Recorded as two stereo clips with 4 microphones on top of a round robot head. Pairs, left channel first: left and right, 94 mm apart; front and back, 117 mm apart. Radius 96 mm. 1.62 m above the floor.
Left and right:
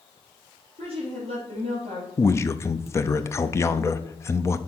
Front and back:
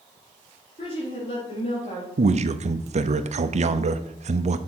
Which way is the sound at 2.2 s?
155° left.